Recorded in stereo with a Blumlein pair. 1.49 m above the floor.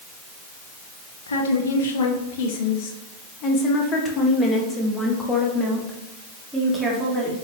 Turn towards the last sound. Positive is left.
turn(degrees=-10)